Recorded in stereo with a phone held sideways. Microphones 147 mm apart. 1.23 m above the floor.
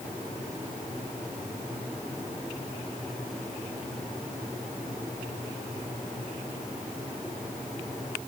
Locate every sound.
Only background noise.